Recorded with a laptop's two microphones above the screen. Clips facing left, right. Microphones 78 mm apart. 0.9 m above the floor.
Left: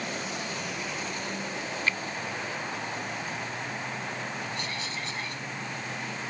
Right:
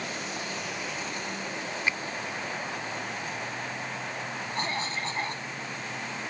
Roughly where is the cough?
Right.